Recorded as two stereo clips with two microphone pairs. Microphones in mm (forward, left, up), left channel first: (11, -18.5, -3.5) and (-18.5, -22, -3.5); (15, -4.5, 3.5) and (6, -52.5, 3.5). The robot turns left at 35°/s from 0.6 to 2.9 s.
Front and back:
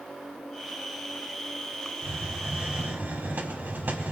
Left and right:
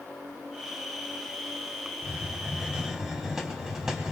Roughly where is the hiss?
Behind right.